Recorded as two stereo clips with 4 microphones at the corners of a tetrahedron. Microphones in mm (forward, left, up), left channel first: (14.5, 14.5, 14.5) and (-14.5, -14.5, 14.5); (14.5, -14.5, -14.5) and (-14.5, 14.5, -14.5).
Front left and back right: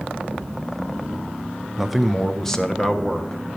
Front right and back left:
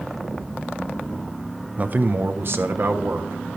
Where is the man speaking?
145° left, 0.5 m; by 3.4 s 115° left, 1.3 m.